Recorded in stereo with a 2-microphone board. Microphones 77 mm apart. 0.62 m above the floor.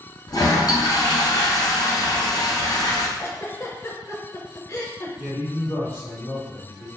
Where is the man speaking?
30° left (ahead or behind), 1.7 m.